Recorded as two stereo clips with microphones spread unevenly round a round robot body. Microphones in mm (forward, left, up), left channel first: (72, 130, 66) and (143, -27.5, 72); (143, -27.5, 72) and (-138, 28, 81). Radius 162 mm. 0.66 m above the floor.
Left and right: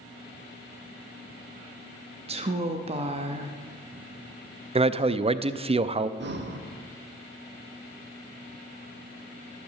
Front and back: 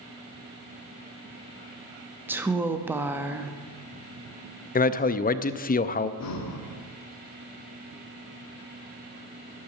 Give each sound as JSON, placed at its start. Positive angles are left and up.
{"t": 2.3, "sound": "a woman speaking", "azimuth_deg": -110, "distance_m": 0.7}
{"t": 4.8, "sound": "a man speaking", "azimuth_deg": -35, "distance_m": 0.5}
{"t": 6.2, "sound": "breathing", "azimuth_deg": -45, "distance_m": 1.0}